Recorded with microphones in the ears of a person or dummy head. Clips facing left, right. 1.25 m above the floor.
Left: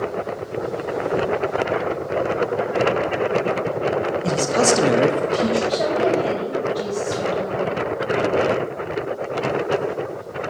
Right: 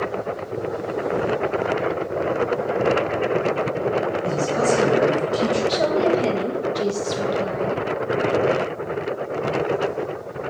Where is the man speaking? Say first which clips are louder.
Left 4 dB; 55° left (ahead or behind), 1.4 m; by 5.6 s 15° right (ahead or behind), 1.0 m.